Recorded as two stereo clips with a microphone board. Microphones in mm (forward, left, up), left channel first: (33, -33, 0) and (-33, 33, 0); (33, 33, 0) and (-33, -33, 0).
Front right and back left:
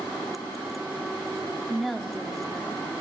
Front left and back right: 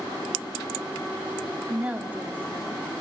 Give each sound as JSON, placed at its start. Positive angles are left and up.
{"t": 1.7, "sound": "a woman speaking", "azimuth_deg": -130, "distance_m": 1.1}